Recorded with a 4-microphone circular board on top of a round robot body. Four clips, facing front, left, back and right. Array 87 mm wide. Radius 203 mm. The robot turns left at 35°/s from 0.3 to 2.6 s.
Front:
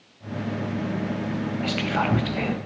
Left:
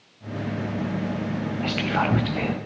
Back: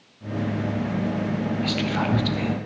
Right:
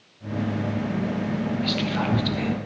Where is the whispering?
75° left, 0.7 m; by 2.5 s 45° left, 0.7 m.